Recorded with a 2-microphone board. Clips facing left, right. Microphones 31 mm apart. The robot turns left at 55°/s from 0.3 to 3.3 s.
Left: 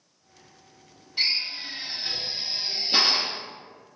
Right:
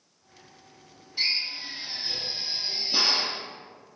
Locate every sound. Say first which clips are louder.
1.2 s a drill: left 1 dB; 30° left (ahead or behind), 0.6 m; by 3.4 s 35° left (ahead or behind), 0.6 m